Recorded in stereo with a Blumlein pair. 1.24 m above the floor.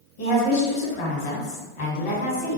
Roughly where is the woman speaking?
Ahead left.